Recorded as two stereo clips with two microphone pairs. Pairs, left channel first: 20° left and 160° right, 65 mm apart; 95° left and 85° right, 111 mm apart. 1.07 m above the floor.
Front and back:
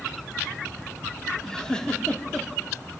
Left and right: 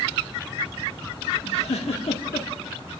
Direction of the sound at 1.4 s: 95° left.